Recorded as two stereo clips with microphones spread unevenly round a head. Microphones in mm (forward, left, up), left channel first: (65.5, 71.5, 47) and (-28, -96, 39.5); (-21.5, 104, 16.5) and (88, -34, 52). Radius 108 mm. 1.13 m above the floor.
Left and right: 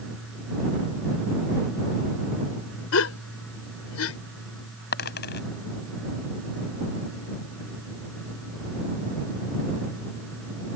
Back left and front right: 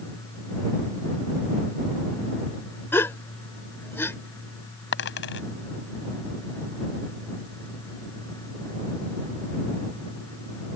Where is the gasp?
50° left.